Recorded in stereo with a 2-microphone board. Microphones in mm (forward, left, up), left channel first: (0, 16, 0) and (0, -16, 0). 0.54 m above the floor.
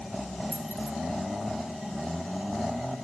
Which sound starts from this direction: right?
Keys jangling, at 0.5 s.